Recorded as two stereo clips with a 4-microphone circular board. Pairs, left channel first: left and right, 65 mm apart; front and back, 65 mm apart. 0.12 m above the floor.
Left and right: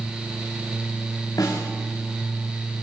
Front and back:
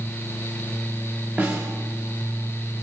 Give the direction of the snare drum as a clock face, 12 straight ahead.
8 o'clock.